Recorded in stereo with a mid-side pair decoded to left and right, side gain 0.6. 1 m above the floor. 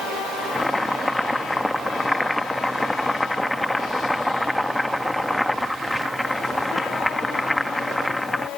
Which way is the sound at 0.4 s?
5° left.